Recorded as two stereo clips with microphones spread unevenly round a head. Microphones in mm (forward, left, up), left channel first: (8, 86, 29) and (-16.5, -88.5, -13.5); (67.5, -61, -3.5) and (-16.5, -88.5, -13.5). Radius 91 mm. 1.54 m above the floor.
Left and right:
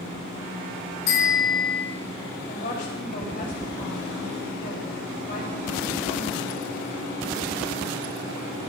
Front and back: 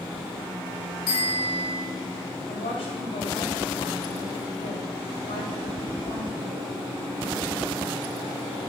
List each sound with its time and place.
1.1 s a bicycle bell: 60° left, 4.5 m
2.5 s a woman speaking: 35° left, 7.5 m